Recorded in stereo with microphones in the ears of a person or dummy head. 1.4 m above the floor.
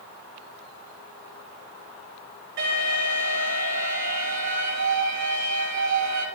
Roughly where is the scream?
No scream in this recording.